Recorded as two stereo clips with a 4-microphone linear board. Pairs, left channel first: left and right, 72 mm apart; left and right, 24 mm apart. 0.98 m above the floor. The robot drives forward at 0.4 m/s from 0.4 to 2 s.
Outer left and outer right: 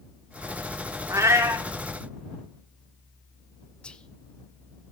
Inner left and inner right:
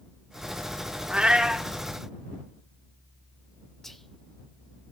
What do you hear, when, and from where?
1.1 s a cat meowing: 45° right (ahead or behind), 0.7 m; by 1.7 s 40° right (ahead or behind), 0.8 m
3.8 s whispering: 15° left (ahead or behind), 0.5 m